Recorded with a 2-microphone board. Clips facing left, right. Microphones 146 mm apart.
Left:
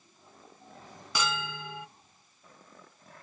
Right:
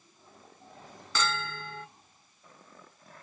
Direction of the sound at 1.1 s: 15° left (ahead or behind).